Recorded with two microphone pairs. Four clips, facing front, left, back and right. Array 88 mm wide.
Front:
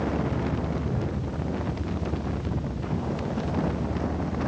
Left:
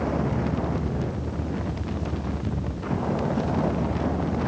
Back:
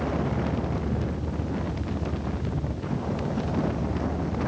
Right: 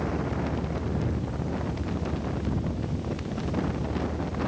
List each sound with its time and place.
0.0 s a vehicle: 90° left